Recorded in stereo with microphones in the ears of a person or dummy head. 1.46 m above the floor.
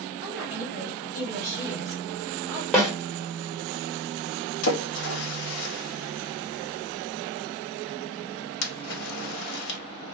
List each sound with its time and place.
0.2 s a woman speaking: 5° right (ahead or behind), 1.3 m
2.7 s a snare drum: 5° left (ahead or behind), 1.2 m
4.6 s a splash: 80° left, 0.8 m